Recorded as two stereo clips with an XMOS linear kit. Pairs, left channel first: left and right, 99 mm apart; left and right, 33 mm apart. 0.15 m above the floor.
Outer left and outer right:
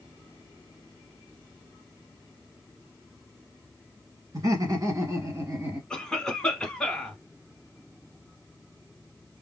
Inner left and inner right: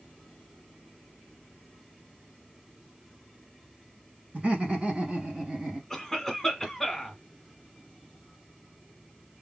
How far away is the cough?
About 1.2 m.